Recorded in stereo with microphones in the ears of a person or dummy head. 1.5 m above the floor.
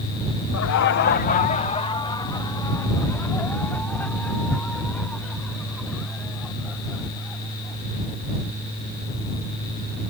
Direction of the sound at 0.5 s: 75° left (ahead or behind).